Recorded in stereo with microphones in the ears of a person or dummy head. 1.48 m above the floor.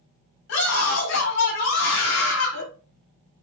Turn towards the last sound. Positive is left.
turn(degrees=80)